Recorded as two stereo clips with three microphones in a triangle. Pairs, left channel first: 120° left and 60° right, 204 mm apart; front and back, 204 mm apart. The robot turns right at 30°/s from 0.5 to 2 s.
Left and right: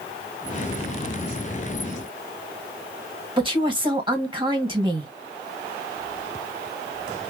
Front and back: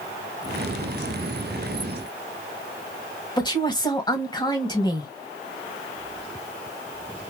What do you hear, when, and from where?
3.4 s a woman speaking: 35° right, 1.5 m